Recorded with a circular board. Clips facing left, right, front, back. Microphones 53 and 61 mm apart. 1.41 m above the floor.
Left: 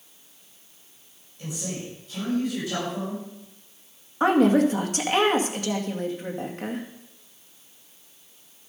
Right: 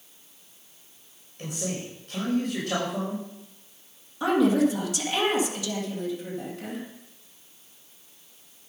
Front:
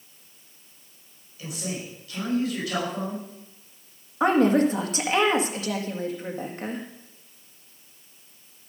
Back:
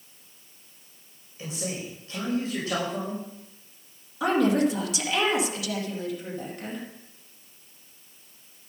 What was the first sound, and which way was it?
A man speaking, 125° right.